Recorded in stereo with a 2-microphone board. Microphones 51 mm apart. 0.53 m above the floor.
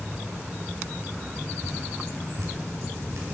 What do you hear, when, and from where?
1.6 s dripping: 70° right (ahead or behind), 3.5 m